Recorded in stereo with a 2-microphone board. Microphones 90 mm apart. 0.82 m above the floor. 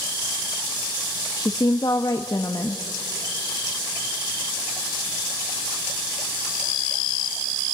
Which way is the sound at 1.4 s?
45° left (ahead or behind).